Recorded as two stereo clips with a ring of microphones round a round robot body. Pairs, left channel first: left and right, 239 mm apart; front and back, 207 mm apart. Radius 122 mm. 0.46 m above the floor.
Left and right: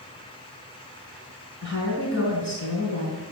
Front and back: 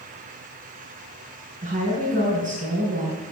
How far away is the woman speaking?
About 4.5 m.